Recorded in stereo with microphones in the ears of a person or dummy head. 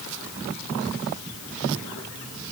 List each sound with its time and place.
Only background noise.